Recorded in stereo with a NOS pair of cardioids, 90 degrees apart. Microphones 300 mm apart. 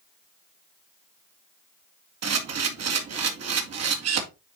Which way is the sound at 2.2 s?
55° right.